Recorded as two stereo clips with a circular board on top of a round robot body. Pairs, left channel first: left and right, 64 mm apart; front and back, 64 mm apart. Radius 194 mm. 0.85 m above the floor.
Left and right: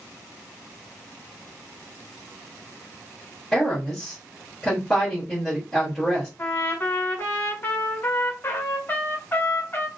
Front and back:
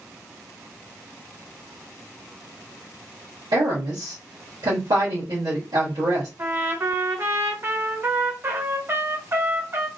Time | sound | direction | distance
3.5 | a woman speaking | 175° left | 1.6 m
6.4 | a trumpet | 140° left | 1.2 m